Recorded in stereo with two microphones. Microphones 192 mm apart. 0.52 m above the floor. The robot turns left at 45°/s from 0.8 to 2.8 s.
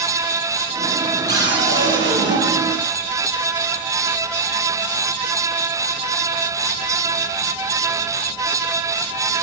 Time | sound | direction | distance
1.3 | a cupboard door | 65° right | 9.5 m